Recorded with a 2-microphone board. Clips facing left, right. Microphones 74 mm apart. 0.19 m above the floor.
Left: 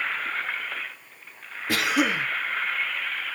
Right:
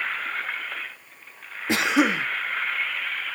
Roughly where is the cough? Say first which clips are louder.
Right 3 dB; right.